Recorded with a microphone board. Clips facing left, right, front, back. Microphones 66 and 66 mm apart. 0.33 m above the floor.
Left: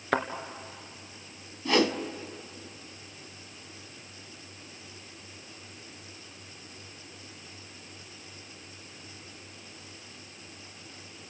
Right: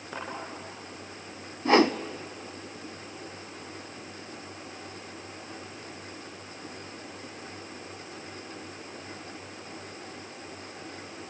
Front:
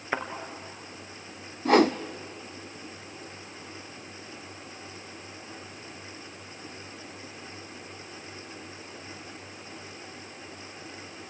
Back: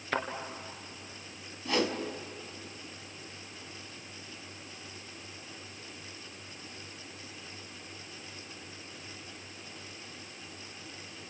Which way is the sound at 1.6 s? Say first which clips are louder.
Right 4 dB, front 10 dB; 35° right.